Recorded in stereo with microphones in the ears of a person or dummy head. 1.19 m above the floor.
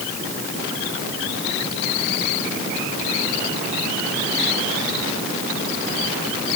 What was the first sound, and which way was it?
Only background noise.